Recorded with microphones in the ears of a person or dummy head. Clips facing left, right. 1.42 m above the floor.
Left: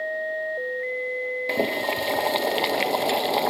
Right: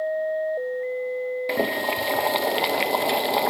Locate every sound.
1.5 s boiling: centre (ahead or behind), 1.0 m